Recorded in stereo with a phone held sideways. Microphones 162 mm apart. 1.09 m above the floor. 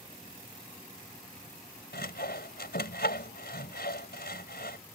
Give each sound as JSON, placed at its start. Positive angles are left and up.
{"t": 1.9, "sound": "sawing", "side_deg": 80}